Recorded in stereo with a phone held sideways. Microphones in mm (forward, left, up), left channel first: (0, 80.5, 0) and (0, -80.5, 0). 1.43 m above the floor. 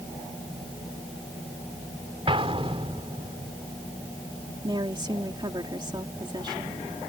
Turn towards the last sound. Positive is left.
turn(degrees=-30)  # may be behind; listen again after turning